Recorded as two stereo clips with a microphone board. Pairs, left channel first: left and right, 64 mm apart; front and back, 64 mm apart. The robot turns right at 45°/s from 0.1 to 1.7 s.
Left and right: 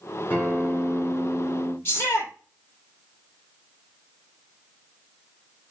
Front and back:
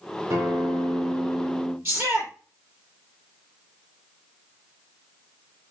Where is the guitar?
145° left, 3 m; by 1.8 s 155° right, 3 m.